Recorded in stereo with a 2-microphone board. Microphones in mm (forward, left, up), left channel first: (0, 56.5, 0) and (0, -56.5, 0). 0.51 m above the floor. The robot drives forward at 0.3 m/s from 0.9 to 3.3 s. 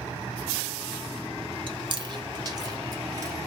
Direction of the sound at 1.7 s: 45° right (ahead or behind).